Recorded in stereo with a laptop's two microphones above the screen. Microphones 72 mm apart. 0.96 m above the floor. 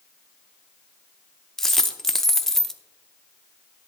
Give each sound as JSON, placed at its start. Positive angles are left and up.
{"t": 1.6, "sound": "a dropped coin", "side_deg": 5, "distance_m": 0.7}